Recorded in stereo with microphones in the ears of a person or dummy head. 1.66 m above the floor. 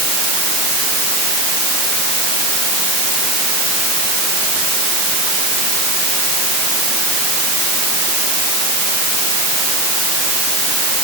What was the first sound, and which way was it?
Only background noise.